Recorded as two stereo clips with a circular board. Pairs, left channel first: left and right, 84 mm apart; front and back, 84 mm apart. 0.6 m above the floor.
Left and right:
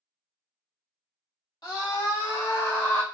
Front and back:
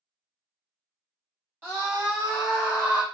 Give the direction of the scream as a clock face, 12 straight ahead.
8 o'clock.